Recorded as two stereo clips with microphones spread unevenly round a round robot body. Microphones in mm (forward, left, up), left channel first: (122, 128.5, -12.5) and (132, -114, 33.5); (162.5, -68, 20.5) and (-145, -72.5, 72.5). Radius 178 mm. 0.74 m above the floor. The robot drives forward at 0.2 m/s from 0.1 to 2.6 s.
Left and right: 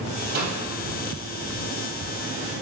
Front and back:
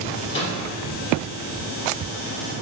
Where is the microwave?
55° right, 3.5 m.